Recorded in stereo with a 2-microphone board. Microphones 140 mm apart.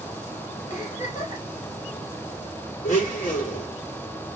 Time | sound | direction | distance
0.7 | a giggle | 60° left (ahead or behind) | 2 m
2.8 | a blender | 65° left (ahead or behind) | 2.5 m